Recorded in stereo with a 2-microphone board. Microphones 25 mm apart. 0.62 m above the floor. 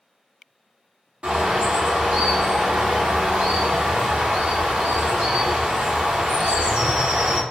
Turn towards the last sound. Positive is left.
turn(degrees=-65)  # may be behind; listen again after turning